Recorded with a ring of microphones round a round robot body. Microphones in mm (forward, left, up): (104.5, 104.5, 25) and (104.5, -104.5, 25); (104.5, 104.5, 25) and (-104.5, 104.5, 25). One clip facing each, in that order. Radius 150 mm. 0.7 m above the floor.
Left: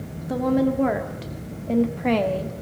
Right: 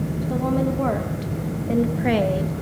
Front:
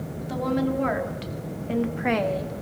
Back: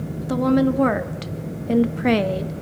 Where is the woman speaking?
170° left, 1.8 m; by 2.5 s 150° right, 0.9 m.